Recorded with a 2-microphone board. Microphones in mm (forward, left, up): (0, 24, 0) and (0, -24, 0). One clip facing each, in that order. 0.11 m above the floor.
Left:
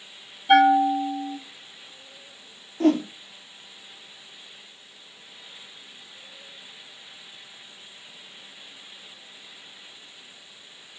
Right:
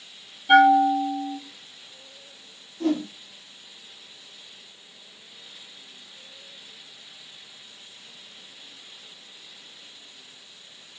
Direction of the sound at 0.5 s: Centre (ahead or behind).